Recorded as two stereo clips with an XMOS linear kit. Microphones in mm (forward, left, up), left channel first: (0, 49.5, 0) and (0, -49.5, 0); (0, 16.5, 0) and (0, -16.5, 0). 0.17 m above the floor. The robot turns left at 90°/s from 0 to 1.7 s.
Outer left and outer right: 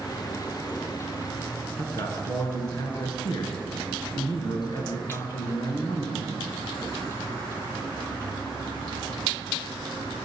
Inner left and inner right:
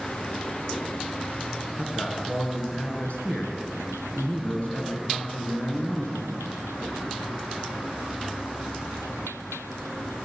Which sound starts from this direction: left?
A man speaking, at 1.8 s.